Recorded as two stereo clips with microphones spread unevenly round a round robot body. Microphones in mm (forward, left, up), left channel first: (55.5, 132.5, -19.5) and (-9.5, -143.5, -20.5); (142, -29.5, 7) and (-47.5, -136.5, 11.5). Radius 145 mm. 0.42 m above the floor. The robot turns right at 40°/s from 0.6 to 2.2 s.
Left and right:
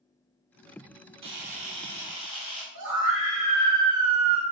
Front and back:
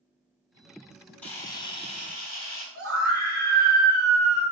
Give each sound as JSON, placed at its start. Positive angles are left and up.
{"t": 1.2, "sound": "a camera shutter", "azimuth_deg": -55, "distance_m": 4.0}
{"t": 2.8, "sound": "a scream", "azimuth_deg": -130, "distance_m": 4.0}